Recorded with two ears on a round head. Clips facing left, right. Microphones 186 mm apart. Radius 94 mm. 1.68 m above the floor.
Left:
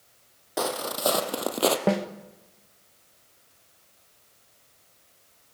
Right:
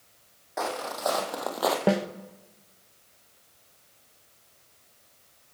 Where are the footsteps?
45° left (ahead or behind), 2.5 m; by 1.8 s 35° left (ahead or behind), 1.9 m.